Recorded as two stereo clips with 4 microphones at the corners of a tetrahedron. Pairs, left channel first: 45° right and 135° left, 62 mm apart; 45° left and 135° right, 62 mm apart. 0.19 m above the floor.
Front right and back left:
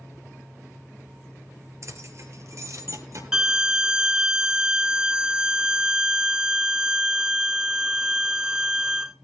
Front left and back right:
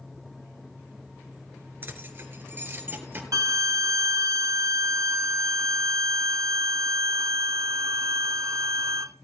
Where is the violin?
150° right, 0.6 m.